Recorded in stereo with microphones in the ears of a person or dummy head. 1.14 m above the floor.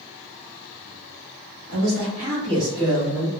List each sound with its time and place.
1.7 s a man speaking: 50° right (ahead or behind), 0.9 m; by 3.3 s 5° right (ahead or behind), 1.1 m